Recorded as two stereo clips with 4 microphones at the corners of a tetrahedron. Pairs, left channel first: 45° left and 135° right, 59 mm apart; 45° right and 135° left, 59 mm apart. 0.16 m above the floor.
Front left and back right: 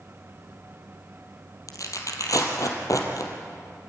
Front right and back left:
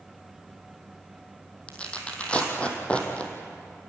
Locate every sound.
1.7 s tearing paper: 25° left, 3 m